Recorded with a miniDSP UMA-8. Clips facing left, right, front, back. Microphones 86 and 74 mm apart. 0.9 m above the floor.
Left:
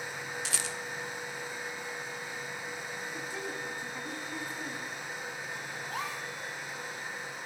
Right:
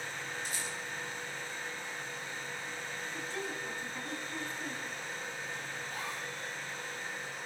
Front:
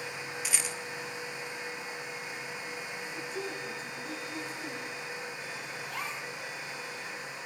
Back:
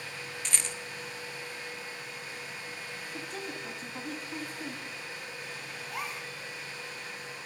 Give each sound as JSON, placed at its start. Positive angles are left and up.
{"t": 0.5, "sound": "a rattle", "azimuth_deg": 80, "distance_m": 1.2}
{"t": 3.1, "sound": "a woman speaking", "azimuth_deg": 165, "distance_m": 6.5}
{"t": 5.8, "sound": "a gasp", "azimuth_deg": 95, "distance_m": 3.0}